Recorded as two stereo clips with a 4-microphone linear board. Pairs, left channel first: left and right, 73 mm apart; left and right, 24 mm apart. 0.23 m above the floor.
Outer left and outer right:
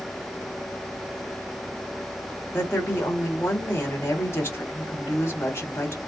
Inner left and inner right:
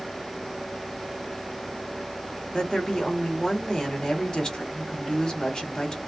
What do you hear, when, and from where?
2.5 s a woman speaking: 35° left (ahead or behind), 1.8 m